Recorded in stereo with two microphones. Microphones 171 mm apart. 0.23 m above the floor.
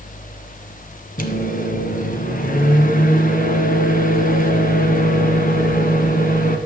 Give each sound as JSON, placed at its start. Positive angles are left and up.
{"t": 1.2, "sound": "a microwave", "side_deg": 55, "distance_m": 1.5}